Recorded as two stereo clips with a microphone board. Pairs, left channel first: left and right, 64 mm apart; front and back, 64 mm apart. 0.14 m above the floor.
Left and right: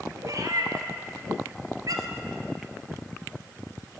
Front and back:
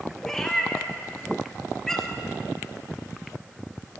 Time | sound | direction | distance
0.2 | a cat meowing | 80° right | 1.0 m